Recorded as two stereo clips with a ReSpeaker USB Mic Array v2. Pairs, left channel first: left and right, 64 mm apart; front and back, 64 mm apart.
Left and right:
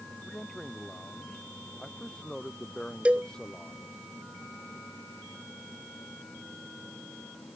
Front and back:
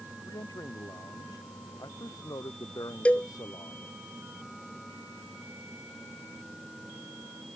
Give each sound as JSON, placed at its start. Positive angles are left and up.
{"t": 0.2, "sound": "a man speaking", "azimuth_deg": 5}
{"t": 3.0, "sound": "a cowbell", "azimuth_deg": -45}